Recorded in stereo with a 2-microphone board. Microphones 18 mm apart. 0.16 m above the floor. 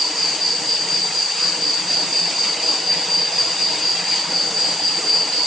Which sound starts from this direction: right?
An insect, at 0.0 s.